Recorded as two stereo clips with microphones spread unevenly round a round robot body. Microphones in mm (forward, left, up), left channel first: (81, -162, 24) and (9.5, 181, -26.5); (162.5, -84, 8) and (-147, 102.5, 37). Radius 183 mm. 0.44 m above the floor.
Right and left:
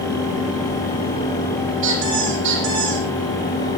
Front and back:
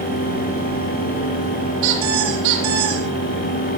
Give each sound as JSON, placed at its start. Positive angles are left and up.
{"t": 1.8, "sound": "a squeak", "azimuth_deg": 160, "distance_m": 9.0}